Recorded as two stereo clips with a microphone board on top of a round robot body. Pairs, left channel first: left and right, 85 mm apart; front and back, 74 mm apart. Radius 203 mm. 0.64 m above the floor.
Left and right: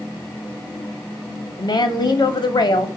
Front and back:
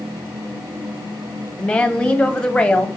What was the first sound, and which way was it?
A woman speaking, 75° left.